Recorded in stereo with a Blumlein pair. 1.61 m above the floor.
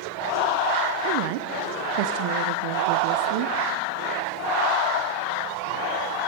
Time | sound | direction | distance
1.0 | a woman speaking | 45° right | 0.7 m